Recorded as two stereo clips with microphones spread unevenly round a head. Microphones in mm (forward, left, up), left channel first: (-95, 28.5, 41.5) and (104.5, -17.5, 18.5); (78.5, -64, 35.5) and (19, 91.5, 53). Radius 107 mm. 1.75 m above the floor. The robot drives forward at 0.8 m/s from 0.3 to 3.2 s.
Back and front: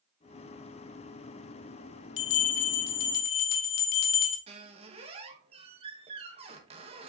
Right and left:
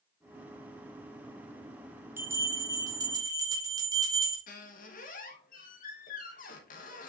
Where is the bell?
175° right, 0.6 m.